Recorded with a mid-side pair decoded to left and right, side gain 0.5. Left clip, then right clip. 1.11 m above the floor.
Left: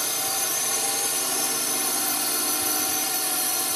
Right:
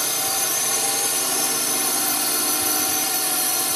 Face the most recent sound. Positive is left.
turn(degrees=-20)